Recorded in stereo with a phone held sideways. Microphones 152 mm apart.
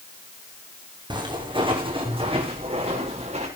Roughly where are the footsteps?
Right.